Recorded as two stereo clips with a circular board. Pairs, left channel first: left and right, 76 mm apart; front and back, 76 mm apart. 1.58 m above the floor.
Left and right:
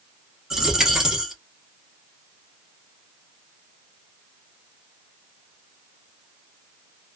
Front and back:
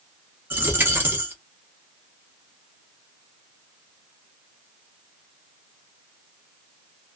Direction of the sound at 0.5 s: 170° right.